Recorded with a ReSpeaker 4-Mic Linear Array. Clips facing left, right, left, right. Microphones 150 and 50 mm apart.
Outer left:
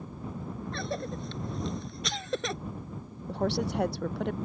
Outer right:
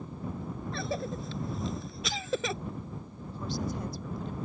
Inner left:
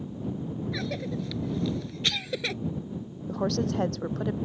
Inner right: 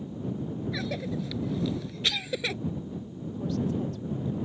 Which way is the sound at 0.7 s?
Centre (ahead or behind).